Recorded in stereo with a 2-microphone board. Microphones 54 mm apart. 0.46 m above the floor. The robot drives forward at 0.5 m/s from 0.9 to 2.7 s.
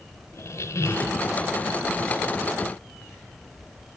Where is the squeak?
55° left (ahead or behind), 1.2 m; by 1.2 s 50° left (ahead or behind), 1.3 m.